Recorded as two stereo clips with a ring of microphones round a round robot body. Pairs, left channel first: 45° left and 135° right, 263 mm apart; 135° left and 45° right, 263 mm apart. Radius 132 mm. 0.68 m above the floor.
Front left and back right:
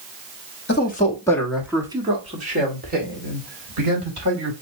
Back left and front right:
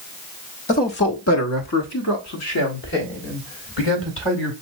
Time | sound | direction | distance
0.7 | a man speaking | 80° left | 1.2 m